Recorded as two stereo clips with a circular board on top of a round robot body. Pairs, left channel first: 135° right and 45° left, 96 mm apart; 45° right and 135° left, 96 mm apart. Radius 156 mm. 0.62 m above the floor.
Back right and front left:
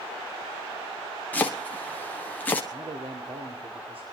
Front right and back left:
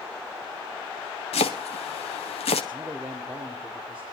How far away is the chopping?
About 0.8 m.